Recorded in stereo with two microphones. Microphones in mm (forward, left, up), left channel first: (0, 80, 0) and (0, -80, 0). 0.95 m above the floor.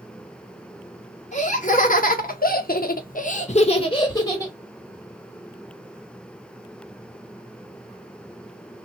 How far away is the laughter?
About 1.2 m.